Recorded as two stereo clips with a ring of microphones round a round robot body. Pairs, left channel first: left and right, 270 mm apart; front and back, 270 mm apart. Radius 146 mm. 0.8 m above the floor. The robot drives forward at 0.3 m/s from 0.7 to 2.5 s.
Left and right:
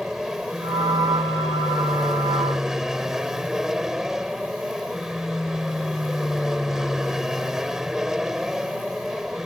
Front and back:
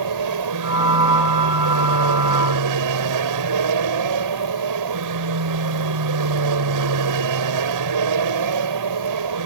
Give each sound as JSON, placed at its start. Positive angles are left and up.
{"t": 0.0, "sound": "an aircraft", "azimuth_deg": 180}